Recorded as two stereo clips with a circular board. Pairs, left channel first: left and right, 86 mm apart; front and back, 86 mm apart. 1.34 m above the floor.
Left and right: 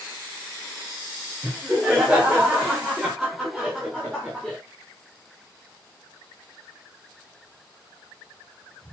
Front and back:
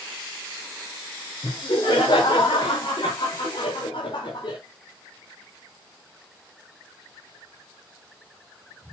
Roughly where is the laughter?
Ahead.